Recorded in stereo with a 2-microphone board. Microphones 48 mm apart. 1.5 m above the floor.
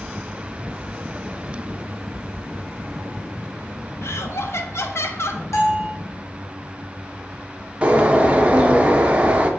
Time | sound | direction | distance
4.0 | laughter | 55° left (ahead or behind) | 0.6 m
5.5 | a bell | 70° left (ahead or behind) | 1.3 m
7.8 | a bird | 25° right (ahead or behind) | 0.6 m